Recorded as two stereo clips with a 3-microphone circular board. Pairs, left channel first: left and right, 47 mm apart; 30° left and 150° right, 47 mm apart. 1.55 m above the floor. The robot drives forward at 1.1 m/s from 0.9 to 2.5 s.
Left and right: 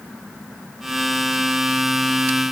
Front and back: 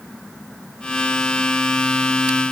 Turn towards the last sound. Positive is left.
No sound to turn to.